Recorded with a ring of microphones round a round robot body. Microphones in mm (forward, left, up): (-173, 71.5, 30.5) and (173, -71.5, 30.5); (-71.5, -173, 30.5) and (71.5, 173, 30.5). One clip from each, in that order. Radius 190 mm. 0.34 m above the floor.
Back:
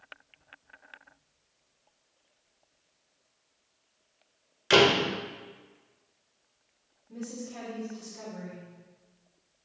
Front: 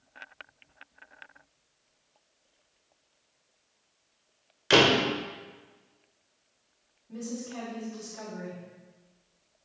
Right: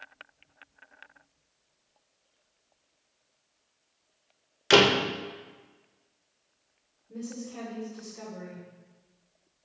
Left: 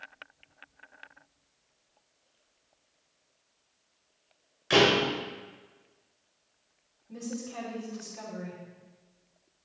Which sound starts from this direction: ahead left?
A woman speaking, at 7.1 s.